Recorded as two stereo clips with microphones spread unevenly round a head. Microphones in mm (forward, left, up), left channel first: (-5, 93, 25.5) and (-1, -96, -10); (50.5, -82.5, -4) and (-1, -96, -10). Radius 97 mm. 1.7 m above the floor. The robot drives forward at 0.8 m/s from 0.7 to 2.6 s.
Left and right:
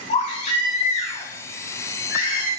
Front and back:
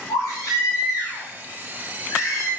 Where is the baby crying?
40° left, 5 m; by 2.5 s 55° left, 4.5 m.